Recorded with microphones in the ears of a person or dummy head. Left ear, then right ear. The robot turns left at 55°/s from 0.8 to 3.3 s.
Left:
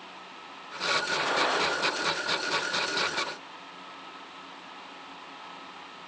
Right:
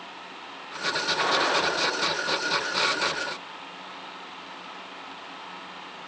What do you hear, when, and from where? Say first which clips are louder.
1.2 s a gunshot: right 3 dB; 10° right (ahead or behind), 1.6 m; by 1.7 s 15° left (ahead or behind), 1.6 m